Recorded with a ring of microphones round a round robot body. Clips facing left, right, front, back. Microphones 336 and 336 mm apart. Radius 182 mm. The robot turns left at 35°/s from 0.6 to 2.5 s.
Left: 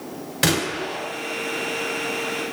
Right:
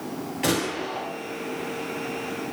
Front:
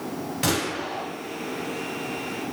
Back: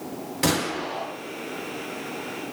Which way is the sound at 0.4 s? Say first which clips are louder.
Left 2 dB, back 3 dB; 95° left.